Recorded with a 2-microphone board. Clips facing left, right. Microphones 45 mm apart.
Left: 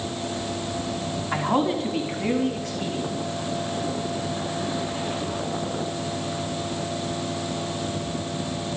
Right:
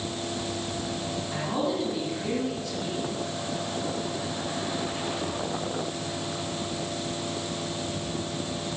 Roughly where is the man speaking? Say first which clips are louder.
Left 6 dB; left.